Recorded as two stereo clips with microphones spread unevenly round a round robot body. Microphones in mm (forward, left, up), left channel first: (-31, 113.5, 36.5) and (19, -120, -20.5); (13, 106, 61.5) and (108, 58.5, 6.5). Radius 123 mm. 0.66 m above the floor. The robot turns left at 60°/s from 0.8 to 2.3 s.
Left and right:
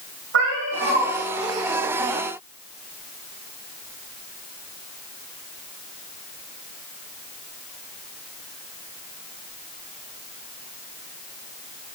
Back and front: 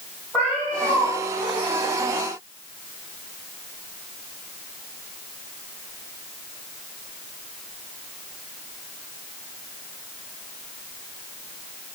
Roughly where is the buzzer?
No buzzer in this recording.